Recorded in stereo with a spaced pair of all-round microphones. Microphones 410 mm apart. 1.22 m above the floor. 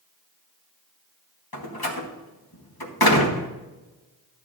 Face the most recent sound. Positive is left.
turn(degrees=60)  # may be behind; listen again after turning